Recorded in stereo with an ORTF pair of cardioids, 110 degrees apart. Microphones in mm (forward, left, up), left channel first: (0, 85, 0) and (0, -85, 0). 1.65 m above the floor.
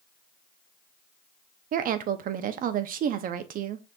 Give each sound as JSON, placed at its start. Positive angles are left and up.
{"t": 1.7, "sound": "a woman speaking", "azimuth_deg": -55, "distance_m": 0.7}